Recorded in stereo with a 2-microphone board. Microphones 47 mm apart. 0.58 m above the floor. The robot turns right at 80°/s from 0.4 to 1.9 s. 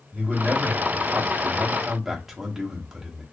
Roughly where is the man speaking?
Behind right.